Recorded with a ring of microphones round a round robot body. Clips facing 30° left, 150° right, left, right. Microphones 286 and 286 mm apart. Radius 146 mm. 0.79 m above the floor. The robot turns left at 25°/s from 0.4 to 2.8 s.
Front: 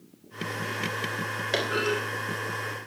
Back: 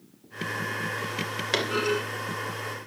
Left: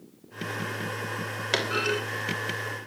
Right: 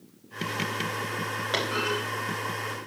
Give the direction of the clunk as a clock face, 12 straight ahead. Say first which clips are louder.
Back 1 dB, left 2 dB; 7 o'clock.